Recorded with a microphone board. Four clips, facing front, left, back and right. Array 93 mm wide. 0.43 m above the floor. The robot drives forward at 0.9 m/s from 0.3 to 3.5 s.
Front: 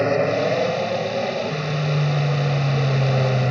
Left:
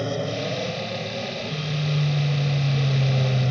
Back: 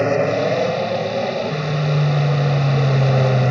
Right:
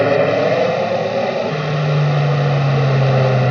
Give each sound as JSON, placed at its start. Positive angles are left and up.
{"t": 0.0, "sound": "an aircraft", "azimuth_deg": -100}